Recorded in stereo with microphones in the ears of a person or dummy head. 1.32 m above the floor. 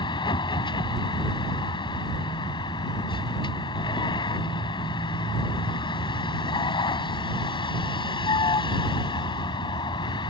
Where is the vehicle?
25° left (ahead or behind).